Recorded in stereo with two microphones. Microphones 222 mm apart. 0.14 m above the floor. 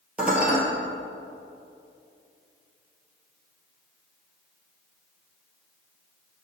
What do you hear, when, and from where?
0.2 s dishes clattering: 5° right (ahead or behind), 1.8 m